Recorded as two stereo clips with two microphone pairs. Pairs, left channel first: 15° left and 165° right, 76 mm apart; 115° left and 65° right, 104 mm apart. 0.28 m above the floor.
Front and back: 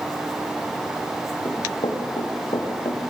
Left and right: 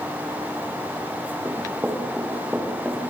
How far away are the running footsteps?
About 7.5 m.